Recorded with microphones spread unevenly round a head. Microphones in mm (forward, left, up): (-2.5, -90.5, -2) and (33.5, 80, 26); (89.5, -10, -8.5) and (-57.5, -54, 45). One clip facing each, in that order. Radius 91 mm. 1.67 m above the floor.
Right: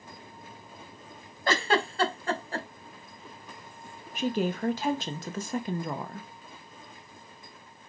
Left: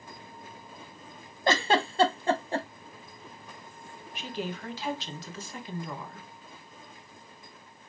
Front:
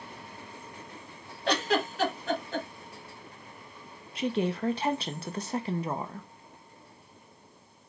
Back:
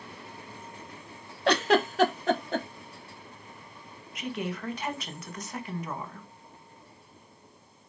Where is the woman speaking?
55° right, 0.9 m.